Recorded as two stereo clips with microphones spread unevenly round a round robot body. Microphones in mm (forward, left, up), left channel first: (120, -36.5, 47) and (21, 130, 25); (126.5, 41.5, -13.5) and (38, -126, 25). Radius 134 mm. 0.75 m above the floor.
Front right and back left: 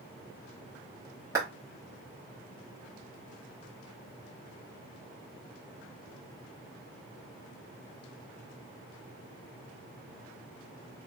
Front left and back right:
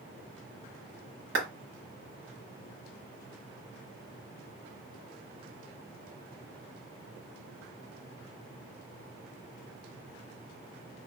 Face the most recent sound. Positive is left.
turn(degrees=-165)